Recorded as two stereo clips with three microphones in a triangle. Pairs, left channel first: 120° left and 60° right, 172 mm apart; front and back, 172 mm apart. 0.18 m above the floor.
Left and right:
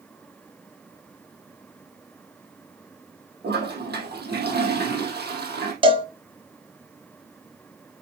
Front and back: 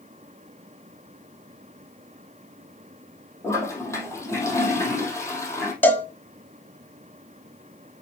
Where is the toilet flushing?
75° right, 2.5 m.